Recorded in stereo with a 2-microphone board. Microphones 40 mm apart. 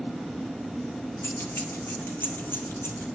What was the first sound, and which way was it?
Keys jangling, 60° left (ahead or behind).